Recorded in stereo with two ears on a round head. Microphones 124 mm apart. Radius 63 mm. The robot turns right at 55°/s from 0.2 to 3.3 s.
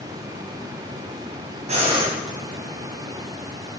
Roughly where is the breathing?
Right.